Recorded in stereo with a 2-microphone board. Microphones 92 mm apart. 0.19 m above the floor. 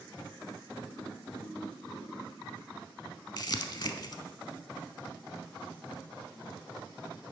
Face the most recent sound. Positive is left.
turn(degrees=50)  # may be behind; listen again after turning